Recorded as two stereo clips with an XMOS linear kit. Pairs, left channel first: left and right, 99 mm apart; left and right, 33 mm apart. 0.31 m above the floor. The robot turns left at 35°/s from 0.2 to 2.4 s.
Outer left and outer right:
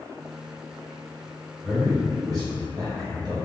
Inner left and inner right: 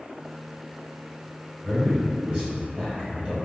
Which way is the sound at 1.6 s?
35° right (ahead or behind).